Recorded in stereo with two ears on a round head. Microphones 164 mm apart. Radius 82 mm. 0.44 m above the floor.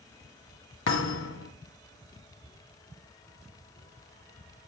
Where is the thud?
80° left, 1.7 m.